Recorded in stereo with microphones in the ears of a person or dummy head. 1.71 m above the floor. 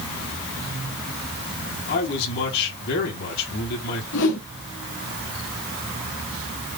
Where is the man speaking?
65° left (ahead or behind), 5 m.